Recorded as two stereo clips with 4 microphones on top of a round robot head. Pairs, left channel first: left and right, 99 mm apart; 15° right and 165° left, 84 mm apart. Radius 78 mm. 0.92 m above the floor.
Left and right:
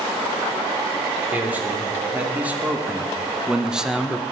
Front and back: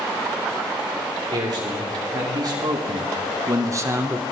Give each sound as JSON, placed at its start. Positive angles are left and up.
{"t": 1.3, "sound": "a man speaking", "azimuth_deg": -160, "distance_m": 3.0}